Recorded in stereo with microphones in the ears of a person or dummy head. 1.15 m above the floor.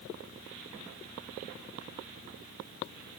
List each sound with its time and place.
Only background noise.